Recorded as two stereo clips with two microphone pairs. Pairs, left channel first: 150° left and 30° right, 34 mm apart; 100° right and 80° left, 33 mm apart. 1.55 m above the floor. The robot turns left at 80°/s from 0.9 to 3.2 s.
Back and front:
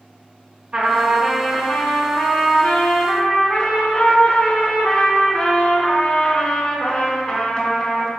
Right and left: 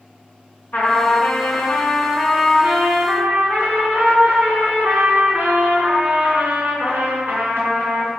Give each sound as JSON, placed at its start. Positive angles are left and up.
{"t": 0.7, "sound": "a trumpet", "azimuth_deg": -85, "distance_m": 3.0}